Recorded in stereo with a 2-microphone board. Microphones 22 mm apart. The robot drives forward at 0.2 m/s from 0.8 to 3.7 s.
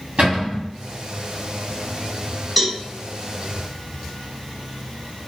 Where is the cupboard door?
70° right (ahead or behind), 1.5 m.